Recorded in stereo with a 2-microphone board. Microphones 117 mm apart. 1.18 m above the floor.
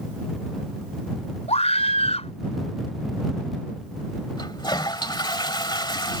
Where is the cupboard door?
No cupboard door in this recording.